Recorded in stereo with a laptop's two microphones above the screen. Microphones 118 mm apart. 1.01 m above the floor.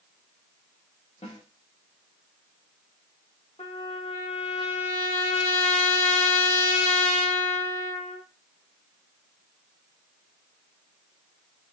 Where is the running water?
No running water in this recording.